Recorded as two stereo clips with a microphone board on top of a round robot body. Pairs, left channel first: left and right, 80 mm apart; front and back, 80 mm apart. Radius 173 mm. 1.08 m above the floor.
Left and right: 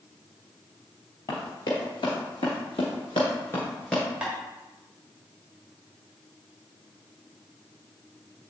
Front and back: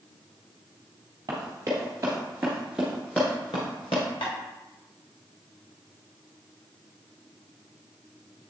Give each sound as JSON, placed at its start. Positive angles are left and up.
{"t": 1.3, "sound": "running footsteps", "azimuth_deg": 130, "distance_m": 1.7}
{"t": 4.2, "sound": "tapping", "azimuth_deg": -10, "distance_m": 1.1}